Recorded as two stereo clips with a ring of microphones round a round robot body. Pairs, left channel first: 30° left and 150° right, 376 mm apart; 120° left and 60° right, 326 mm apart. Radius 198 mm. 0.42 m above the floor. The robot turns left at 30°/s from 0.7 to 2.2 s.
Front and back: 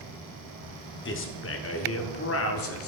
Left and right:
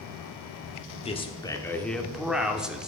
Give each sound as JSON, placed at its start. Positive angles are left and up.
{"t": 1.1, "sound": "a man speaking", "azimuth_deg": 60, "distance_m": 1.1}